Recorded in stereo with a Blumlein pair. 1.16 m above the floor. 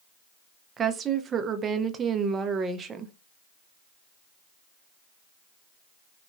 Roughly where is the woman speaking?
Ahead.